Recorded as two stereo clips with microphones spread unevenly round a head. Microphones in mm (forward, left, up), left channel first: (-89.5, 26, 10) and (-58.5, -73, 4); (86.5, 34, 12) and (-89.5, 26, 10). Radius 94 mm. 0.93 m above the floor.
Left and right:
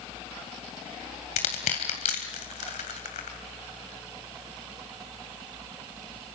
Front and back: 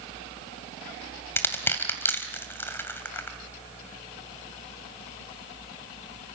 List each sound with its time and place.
1.4 s crushing: 80° left, 2.5 m